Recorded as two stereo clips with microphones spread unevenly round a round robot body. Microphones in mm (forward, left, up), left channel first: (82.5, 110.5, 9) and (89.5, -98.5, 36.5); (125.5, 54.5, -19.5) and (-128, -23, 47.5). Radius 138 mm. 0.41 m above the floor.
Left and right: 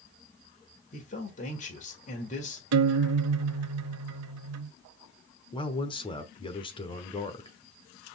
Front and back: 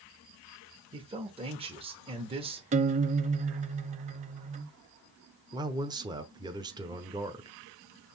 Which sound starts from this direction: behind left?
A man speaking, at 0.9 s.